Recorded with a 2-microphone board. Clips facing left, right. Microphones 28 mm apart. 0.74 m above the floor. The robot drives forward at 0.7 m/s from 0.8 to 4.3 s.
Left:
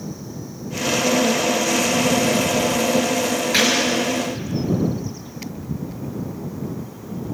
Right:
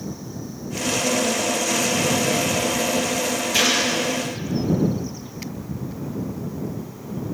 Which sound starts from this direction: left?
A gunshot, at 3.5 s.